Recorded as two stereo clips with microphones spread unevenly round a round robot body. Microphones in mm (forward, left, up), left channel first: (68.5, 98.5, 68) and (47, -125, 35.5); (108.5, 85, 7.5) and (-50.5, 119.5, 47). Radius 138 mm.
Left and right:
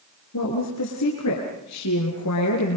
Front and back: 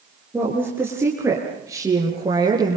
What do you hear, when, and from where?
0.3 s a woman speaking: 90° left, 6 m; by 2.8 s 105° left, 7.5 m